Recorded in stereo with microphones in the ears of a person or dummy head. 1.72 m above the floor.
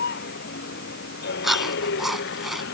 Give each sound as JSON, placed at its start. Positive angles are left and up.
{"t": 0.0, "sound": "a vehicle", "side_deg": 50}
{"t": 1.4, "sound": "chewing", "side_deg": 5}